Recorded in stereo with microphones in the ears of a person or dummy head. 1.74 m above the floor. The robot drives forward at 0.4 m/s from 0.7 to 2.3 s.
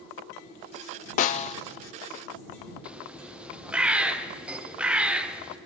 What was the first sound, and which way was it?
A snare drum, 40° left (ahead or behind).